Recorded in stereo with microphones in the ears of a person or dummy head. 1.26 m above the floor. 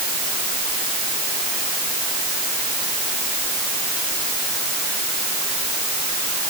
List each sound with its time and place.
Only background noise.